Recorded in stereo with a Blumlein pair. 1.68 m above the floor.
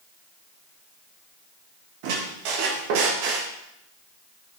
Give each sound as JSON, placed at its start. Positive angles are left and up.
{"t": 2.0, "sound": "a squeak", "azimuth_deg": -45, "distance_m": 1.8}